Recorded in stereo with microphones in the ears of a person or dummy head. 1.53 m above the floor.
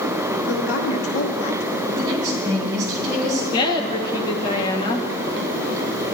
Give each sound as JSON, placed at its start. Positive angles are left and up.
{"t": 0.5, "sound": "a woman speaking", "side_deg": 80, "distance_m": 1.0}
{"t": 2.0, "sound": "a woman speaking", "side_deg": -25, "distance_m": 4.0}
{"t": 3.5, "sound": "a woman speaking", "side_deg": 25, "distance_m": 1.2}